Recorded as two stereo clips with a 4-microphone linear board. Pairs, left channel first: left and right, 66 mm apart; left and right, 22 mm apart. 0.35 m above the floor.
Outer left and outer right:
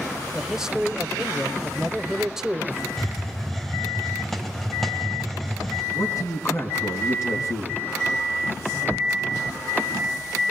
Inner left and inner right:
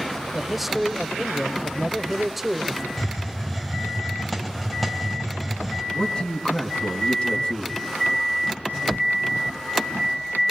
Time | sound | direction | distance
0.3 | a man speaking | 10° right (ahead or behind) | 1.2 m
3.0 | a hiss | 5° left (ahead or behind) | 2 m
5.9 | a man speaking | 50° left (ahead or behind) | 3.5 m